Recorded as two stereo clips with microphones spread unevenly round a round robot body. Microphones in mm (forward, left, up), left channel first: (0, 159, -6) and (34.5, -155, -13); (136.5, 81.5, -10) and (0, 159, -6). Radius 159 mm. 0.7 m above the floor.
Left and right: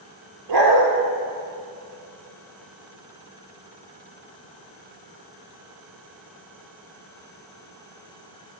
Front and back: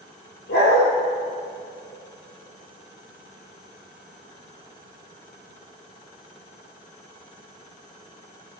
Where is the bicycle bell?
I don't hear a bicycle bell.